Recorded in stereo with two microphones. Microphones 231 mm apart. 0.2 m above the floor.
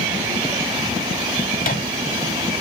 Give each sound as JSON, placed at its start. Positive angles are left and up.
{"t": 1.6, "sound": "a microwave", "side_deg": 40, "distance_m": 1.2}